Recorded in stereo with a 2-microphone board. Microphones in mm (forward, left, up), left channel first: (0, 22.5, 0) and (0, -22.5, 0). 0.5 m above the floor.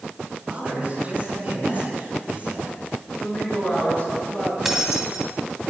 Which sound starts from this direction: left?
A woman speaking, at 3.1 s.